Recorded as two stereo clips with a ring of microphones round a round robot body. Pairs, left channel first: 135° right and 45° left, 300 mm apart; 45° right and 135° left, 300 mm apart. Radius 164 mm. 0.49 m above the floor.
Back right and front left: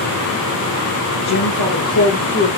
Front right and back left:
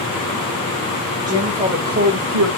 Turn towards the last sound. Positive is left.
turn(degrees=165)